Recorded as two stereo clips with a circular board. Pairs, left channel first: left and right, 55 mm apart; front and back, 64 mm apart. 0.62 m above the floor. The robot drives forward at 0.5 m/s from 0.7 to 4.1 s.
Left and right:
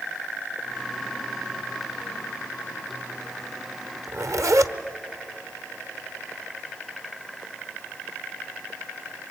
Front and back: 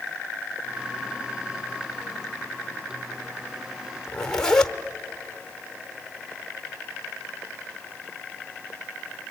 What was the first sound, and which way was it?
A zipper, 75° right.